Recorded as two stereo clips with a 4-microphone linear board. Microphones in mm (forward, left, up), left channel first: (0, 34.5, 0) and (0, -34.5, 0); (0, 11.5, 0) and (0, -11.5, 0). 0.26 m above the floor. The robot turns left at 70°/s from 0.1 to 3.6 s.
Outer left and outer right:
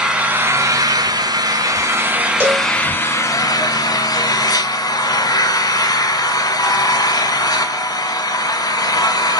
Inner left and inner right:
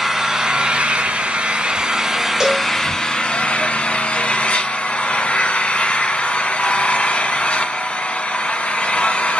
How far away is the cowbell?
About 1.1 m.